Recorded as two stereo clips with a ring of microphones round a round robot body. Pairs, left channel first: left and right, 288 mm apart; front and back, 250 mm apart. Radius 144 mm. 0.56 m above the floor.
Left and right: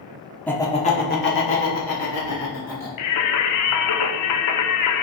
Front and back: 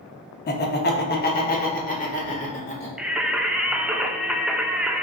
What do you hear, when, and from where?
0.5 s laughter: 5° left, 0.8 m; by 2.9 s 60° left, 2 m
3.0 s singing: 95° left, 0.6 m